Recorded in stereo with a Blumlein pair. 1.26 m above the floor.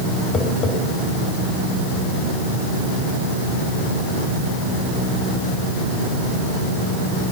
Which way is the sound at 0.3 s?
15° left.